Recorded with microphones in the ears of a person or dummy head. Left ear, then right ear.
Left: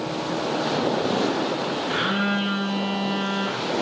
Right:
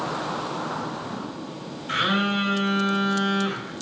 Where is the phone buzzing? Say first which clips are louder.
Right 4 dB; 55° right (ahead or behind), 2.5 m.